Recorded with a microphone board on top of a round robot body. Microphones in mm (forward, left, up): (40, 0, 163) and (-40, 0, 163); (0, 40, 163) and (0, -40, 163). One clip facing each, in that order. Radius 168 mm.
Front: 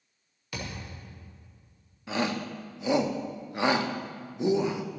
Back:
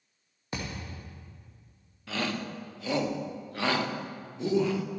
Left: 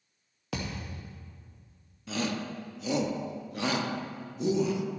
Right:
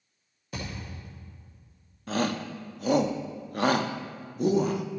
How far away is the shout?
About 0.9 m.